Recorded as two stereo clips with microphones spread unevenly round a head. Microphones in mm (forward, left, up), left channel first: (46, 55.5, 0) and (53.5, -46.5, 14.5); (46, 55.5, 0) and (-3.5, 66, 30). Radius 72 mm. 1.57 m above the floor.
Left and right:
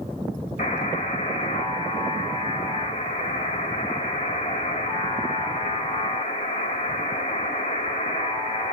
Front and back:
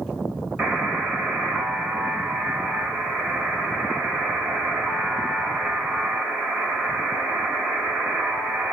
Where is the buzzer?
120° left, 1.8 m.